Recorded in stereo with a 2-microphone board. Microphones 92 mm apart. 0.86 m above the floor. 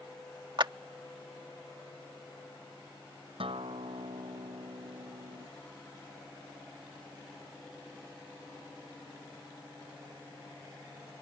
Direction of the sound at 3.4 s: 75° right (ahead or behind).